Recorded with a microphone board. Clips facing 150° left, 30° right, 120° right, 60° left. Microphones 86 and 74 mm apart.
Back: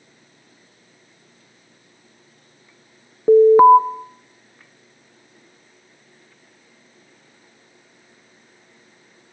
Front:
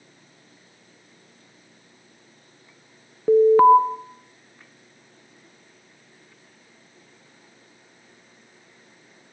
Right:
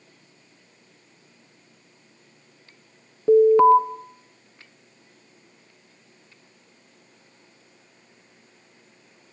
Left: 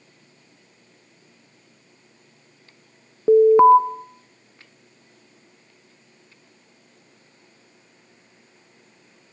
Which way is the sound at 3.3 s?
95° left.